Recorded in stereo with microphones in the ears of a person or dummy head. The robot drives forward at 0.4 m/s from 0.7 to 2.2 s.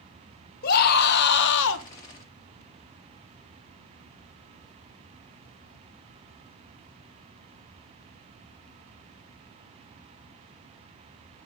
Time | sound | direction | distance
0.6 | a scream | 50° left (ahead or behind) | 1.4 m